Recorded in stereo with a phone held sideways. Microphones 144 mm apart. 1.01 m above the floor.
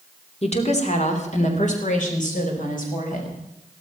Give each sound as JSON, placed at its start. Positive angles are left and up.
{"t": 0.4, "sound": "a woman speaking", "side_deg": 45, "distance_m": 2.5}